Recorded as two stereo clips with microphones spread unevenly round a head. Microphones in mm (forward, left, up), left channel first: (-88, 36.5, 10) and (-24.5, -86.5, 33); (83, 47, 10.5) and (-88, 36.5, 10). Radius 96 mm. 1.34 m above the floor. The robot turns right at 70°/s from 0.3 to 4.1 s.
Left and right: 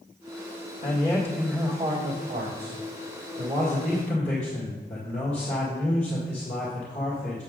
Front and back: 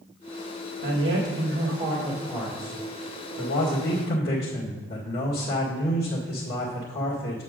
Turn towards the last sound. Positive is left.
turn(degrees=35)